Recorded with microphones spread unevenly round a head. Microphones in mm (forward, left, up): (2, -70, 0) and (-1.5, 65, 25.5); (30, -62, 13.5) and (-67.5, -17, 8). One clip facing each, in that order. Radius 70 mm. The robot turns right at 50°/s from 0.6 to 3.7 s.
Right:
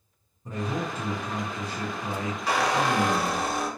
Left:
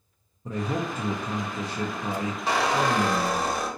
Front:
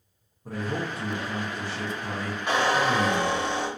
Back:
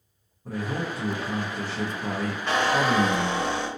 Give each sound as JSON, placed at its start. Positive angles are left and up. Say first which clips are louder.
{"t": 0.5, "sound": "a man speaking", "louder": "left 2 dB, back 1 dB", "azimuth_deg": 60, "distance_m": 0.6}
{"t": 2.5, "sound": "a squeak", "louder": "even, even", "azimuth_deg": 50, "distance_m": 0.9}